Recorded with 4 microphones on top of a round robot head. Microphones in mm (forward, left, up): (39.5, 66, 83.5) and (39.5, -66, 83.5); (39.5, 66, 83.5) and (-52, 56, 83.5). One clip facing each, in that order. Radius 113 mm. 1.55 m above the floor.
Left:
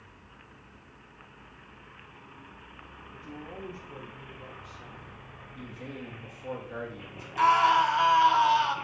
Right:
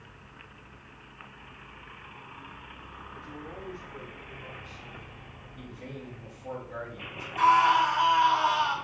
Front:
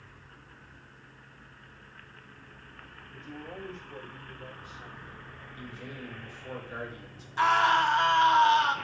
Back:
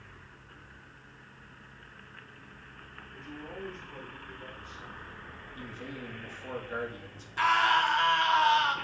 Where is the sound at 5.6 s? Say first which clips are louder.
Left 1 dB, back 1 dB; 135° left, 2 m.